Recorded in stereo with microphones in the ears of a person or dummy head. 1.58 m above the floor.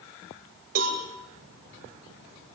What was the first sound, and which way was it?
A cowbell, 50° right (ahead or behind).